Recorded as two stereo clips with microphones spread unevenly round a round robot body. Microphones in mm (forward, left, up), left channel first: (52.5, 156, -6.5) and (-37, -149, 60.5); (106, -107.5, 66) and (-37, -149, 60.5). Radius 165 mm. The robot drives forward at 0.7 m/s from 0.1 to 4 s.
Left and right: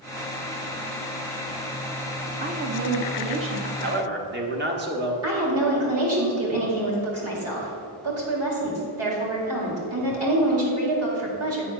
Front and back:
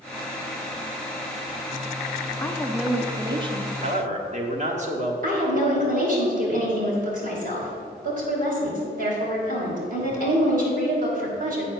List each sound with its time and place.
2.4 s a woman speaking: 45° right, 0.9 m; by 3.7 s 155° right, 1.0 m
3.8 s a man speaking: 165° right, 1.1 m; by 5.1 s 170° right, 1.2 m
5.2 s a woman speaking: 155° right, 2.5 m